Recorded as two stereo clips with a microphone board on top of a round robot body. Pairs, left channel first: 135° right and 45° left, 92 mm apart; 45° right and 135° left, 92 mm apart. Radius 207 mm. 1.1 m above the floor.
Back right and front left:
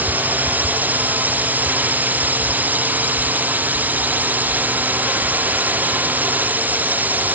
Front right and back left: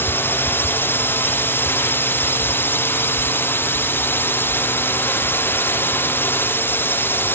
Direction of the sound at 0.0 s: 5° right.